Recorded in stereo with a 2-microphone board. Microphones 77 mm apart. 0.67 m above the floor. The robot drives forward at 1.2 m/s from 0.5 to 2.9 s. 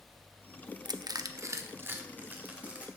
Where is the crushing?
55° right (ahead or behind), 0.7 m; by 2.9 s 15° right (ahead or behind), 2.5 m.